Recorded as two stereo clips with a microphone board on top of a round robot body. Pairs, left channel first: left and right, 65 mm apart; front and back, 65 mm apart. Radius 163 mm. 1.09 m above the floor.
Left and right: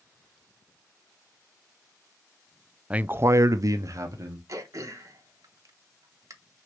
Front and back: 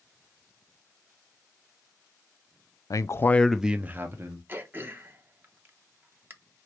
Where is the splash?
No splash in this recording.